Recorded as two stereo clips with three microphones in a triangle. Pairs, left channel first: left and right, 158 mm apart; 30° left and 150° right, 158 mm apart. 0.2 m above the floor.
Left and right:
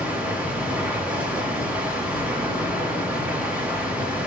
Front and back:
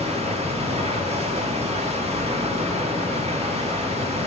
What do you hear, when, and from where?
0.0 s running water: 170° right, 1.5 m